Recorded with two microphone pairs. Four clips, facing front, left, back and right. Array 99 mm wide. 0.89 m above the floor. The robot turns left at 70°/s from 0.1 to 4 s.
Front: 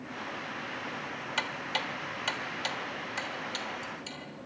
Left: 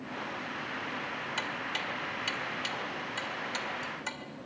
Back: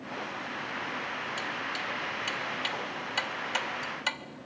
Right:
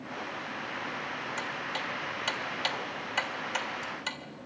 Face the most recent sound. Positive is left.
turn(degrees=-170)